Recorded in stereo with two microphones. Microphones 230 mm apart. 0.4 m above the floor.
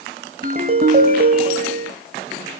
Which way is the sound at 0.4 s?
45° right (ahead or behind).